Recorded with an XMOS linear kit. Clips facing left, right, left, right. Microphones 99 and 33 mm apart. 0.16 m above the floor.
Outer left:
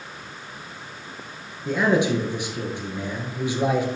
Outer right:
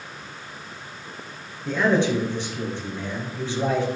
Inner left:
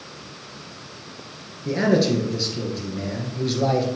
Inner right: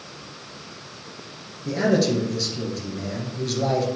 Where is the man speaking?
10° left (ahead or behind), 2.5 m.